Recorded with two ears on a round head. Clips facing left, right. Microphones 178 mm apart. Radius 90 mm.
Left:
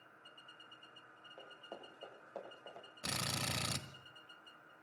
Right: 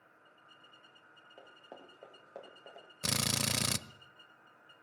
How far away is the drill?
About 1.2 m.